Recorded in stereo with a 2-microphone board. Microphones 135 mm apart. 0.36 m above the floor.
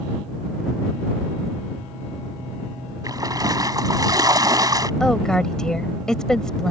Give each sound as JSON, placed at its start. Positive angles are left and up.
{"t": 3.0, "sound": "a splash", "side_deg": -30}
{"t": 5.0, "sound": "a woman speaking", "side_deg": 5}